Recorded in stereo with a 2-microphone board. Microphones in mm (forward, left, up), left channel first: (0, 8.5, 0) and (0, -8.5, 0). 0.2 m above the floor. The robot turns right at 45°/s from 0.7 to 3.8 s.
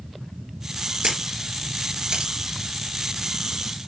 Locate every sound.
1.0 s a camera shutter: 50° right (ahead or behind), 4 m; by 2.3 s 60° right (ahead or behind), 4 m